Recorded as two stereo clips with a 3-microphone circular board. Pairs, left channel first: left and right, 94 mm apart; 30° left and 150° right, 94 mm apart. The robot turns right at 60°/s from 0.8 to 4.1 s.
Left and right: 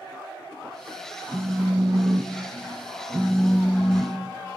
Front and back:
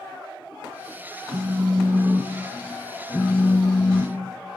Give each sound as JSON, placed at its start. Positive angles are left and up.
{"t": 1.3, "sound": "a phone buzzing", "azimuth_deg": -150, "distance_m": 0.5}